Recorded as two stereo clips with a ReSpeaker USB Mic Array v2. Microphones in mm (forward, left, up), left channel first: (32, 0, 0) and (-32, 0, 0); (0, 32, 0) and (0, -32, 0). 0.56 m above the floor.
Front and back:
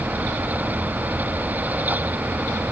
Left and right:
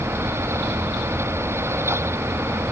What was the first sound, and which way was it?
Only background noise.